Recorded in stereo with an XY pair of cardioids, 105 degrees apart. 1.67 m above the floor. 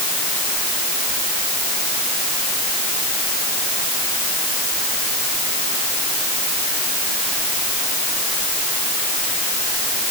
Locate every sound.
Only background noise.